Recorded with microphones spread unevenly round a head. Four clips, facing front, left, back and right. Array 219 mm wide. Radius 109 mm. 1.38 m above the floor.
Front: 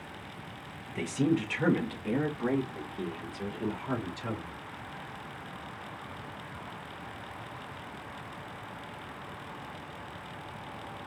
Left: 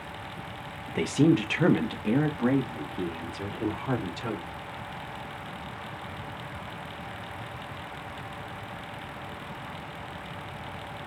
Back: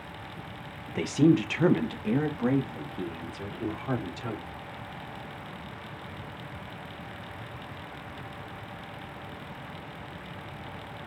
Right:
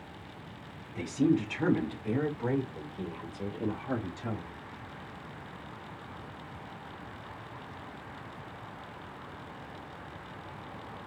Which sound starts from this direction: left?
A woman speaking, at 0.9 s.